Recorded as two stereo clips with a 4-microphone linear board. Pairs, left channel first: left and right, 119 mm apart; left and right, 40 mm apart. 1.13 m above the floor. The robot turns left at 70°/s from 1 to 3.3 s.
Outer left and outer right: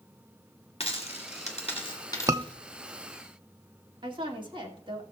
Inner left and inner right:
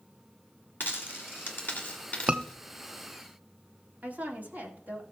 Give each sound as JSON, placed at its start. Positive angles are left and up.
{"t": 0.8, "sound": "a dropped coin", "side_deg": 55, "distance_m": 2.0}
{"t": 2.3, "sound": "a scream", "side_deg": -25, "distance_m": 0.7}
{"t": 4.0, "sound": "a woman speaking", "side_deg": -45, "distance_m": 2.0}